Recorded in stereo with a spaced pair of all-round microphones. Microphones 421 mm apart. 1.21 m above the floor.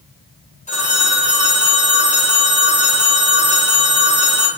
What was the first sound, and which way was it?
A phone ringing, 15° left (ahead or behind).